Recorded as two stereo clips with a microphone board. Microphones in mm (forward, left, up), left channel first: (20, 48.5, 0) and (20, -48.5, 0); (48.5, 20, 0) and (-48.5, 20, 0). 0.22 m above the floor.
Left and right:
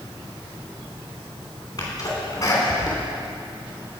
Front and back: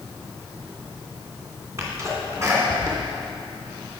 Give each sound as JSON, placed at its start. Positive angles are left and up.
{"t": 1.8, "sound": "a sneeze", "azimuth_deg": 130, "distance_m": 2.5}